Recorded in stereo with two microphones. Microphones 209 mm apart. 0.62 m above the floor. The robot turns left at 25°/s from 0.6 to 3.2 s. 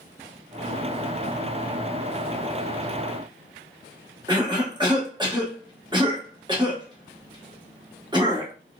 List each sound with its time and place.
4.3 s a cough: 20° right (ahead or behind), 1.2 m